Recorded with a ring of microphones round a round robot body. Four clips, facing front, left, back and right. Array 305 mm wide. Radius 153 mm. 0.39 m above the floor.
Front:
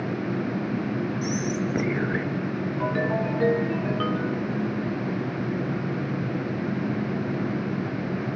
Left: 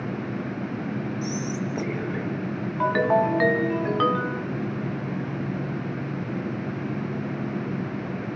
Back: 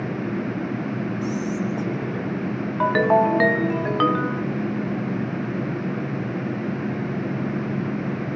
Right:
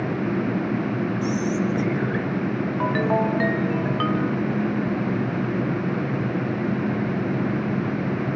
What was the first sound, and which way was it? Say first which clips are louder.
Whispering: right 6 dB, back 2 dB; 35° right.